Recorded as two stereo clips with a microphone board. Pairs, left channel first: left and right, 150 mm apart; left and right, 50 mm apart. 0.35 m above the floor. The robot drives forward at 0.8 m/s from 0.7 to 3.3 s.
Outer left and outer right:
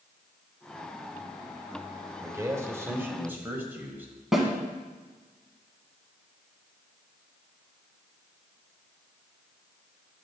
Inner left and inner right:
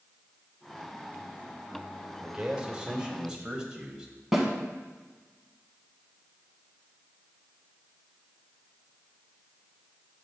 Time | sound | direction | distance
2.2 | a man speaking | 20° right (ahead or behind) | 0.9 m
4.3 | a snare drum | 5° right (ahead or behind) | 1.3 m